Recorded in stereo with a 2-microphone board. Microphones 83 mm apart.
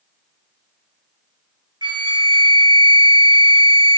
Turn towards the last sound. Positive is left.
turn(degrees=-75)  # may be behind; listen again after turning